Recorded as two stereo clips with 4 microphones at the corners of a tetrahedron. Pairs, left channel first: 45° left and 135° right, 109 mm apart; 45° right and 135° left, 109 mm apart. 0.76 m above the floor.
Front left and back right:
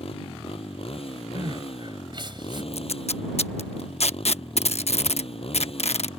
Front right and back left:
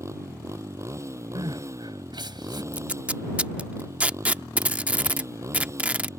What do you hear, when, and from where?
0.0 s a motorcycle: 70° left
1.4 s crying: straight behind
2.7 s tape being pulled: 60° left